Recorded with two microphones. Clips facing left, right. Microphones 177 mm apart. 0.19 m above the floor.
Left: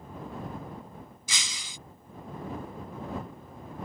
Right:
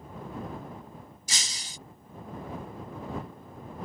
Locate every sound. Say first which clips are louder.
1.3 s breaking glass: right 1 dB; 40° right (ahead or behind)